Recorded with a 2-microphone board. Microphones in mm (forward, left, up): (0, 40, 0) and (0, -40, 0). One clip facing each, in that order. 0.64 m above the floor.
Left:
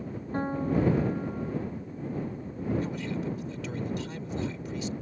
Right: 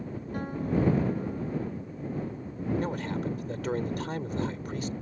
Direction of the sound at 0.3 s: 30° left (ahead or behind).